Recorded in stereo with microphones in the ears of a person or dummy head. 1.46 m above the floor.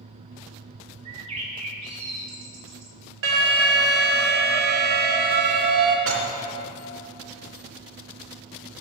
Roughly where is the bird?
Centre.